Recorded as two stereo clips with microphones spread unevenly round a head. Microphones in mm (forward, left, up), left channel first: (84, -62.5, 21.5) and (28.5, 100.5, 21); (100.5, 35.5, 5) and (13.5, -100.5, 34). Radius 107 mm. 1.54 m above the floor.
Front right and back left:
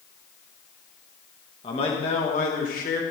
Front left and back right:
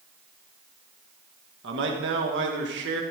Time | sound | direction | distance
1.6 | a man speaking | 140° right | 2.5 m